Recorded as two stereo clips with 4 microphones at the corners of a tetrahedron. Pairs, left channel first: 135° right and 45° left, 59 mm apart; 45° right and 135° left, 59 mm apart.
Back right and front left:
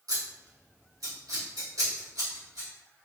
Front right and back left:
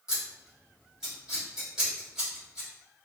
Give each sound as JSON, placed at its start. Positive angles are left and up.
{"t": 0.1, "sound": "scissors", "azimuth_deg": 55, "distance_m": 1.5}